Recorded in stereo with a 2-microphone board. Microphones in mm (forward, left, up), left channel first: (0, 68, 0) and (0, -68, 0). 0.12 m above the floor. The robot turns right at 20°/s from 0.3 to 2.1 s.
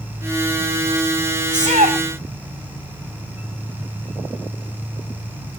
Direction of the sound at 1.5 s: 55° right (ahead or behind).